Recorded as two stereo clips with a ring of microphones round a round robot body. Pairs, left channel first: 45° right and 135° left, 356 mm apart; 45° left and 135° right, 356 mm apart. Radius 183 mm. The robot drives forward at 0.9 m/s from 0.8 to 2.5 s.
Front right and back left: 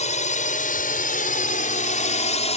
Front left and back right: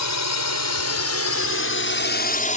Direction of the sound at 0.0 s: 20° left.